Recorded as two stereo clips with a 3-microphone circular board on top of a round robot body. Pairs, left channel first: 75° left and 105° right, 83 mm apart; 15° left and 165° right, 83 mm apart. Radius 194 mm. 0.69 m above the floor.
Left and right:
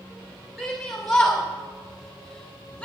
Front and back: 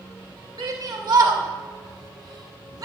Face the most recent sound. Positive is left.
turn(degrees=150)